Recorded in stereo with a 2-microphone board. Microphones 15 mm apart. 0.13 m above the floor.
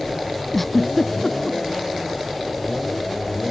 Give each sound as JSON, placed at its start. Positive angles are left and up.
{"t": 0.5, "sound": "a giggle", "side_deg": 10}